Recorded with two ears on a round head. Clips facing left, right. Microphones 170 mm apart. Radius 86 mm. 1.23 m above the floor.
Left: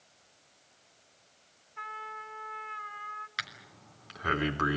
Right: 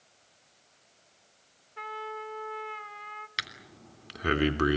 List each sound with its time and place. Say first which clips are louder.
1.8 s a trumpet: right 7 dB; 40° right (ahead or behind), 2.0 m
3.4 s breathing: right 2 dB; 40° right (ahead or behind), 3 m